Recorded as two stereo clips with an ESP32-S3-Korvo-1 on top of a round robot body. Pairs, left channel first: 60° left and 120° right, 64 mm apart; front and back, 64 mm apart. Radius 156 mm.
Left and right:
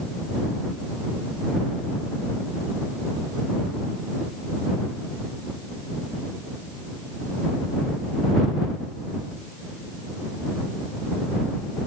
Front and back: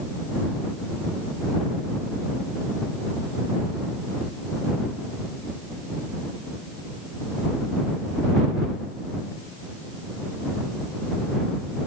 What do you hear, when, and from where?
Only background noise.